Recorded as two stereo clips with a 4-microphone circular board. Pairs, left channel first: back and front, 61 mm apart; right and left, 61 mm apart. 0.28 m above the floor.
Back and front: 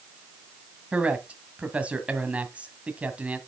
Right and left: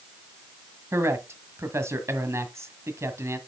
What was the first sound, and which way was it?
A man speaking, 65° left.